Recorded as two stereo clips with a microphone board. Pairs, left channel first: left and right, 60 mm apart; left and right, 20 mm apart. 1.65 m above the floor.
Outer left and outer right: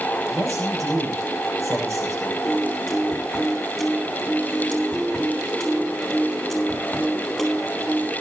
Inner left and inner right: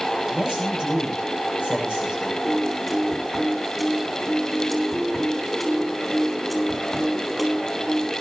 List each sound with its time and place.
0.3 s a man speaking: 60° right (ahead or behind), 8 m
2.4 s a piano: 5° right (ahead or behind), 7 m